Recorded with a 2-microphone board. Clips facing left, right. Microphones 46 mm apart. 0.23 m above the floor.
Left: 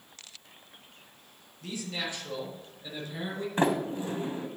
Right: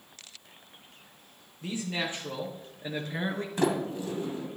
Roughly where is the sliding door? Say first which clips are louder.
Left 1 dB; left.